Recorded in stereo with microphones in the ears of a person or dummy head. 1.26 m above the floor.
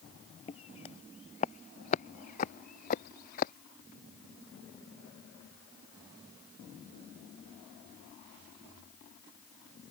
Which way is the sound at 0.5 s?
30° left (ahead or behind).